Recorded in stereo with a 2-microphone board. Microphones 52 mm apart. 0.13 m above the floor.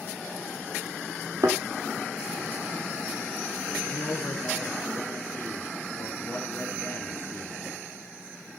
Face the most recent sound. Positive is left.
turn(degrees=40)  # may be behind; listen again after turning